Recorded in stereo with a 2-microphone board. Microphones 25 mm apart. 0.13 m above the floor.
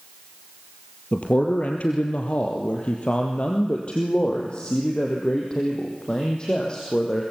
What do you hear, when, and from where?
1.1 s a man speaking: 60° left (ahead or behind), 2.5 m; by 7.2 s 30° left (ahead or behind), 4.5 m